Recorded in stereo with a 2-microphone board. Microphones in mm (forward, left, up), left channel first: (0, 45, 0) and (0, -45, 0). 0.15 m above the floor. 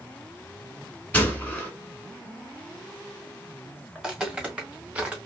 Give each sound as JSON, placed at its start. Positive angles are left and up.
{"t": 1.1, "sound": "a gunshot", "side_deg": 15, "distance_m": 1.1}
{"t": 4.0, "sound": "footsteps", "side_deg": -5, "distance_m": 1.4}